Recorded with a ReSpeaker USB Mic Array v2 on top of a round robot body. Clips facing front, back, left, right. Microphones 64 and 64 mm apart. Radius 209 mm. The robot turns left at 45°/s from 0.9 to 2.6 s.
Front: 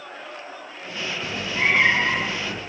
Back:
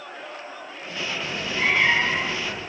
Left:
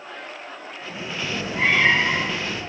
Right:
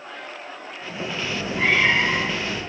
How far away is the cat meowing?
About 1.0 m.